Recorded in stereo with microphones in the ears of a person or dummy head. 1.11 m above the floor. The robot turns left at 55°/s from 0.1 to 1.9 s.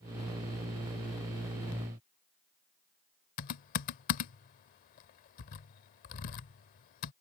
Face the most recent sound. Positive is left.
turn(degrees=40)  # may be behind; listen again after turning